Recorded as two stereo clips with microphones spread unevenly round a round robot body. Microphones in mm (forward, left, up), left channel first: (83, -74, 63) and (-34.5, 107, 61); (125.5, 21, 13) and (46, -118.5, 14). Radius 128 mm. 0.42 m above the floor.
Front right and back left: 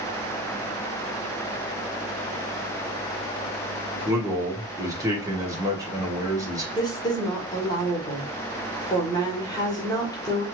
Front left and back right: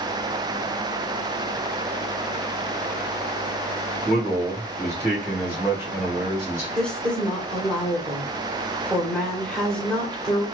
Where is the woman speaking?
15° right, 1.3 m.